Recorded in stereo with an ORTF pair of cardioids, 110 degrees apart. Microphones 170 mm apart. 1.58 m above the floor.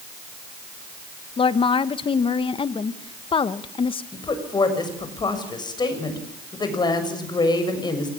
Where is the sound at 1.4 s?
30° left, 1.6 m.